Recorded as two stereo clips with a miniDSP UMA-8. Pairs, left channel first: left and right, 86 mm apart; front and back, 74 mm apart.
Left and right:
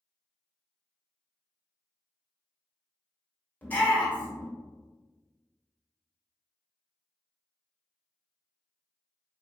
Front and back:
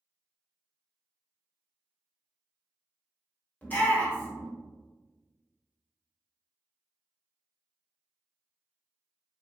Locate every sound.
3.6 s a shout: 40° left, 1.5 m